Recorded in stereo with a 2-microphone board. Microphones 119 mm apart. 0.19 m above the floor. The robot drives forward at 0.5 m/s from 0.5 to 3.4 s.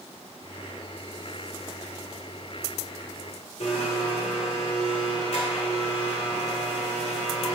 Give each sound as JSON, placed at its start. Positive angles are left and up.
{"t": 3.6, "sound": "a blender", "side_deg": 65, "distance_m": 1.5}